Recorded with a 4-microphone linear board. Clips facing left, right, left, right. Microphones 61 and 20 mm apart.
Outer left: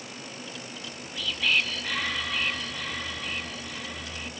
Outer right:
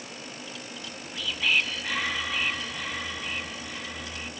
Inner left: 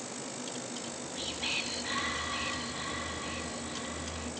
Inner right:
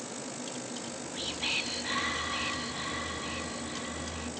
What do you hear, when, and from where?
0.8 s whispering: 10° right (ahead or behind), 2 m